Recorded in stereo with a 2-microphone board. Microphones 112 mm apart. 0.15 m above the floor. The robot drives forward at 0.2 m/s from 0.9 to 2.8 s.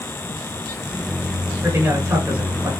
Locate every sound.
1.6 s a man speaking: 25° right (ahead or behind), 1.8 m; by 2.7 s 20° right (ahead or behind), 1.9 m